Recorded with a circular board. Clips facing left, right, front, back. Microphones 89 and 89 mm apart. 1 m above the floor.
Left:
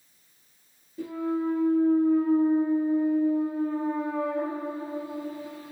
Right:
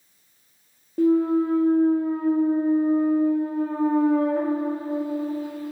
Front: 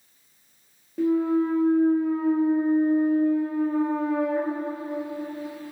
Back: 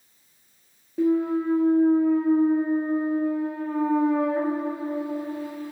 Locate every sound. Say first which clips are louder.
1.0 s a clunk: right 10 dB, even; 95° right, 0.6 m